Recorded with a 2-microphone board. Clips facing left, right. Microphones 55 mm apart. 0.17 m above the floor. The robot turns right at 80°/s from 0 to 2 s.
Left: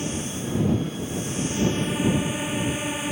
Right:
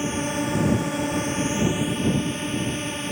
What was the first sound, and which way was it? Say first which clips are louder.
A drone: right 5 dB; 155° right.